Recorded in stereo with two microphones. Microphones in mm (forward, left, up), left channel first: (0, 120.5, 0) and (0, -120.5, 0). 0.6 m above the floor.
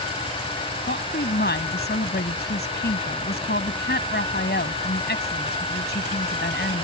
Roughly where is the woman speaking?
Left.